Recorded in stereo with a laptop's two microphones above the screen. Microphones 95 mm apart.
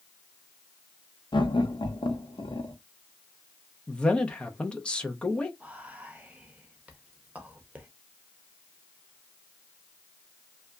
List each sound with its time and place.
1.3 s laughter: 55° left (ahead or behind), 1.1 m
3.9 s a man speaking: 10° left (ahead or behind), 0.7 m
5.6 s whispering: 15° right (ahead or behind), 0.6 m